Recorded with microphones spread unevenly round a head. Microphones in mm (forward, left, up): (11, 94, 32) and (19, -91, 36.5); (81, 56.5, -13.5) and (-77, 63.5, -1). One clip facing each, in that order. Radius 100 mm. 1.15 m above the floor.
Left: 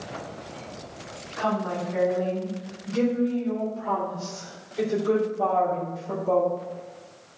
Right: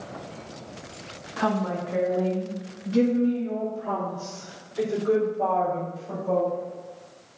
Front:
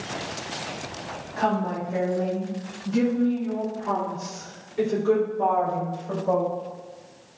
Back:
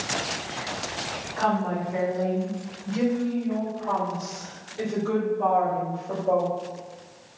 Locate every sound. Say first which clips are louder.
1.4 s a woman speaking: right 1 dB, even; 65° right, 2 m; by 6.5 s straight ahead, 4 m